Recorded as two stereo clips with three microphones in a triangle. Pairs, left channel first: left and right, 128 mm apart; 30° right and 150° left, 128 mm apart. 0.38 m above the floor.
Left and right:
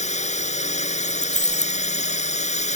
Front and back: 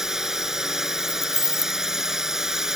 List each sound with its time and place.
0.0 s a drone: 65° left
1.0 s keys jangling: 80° right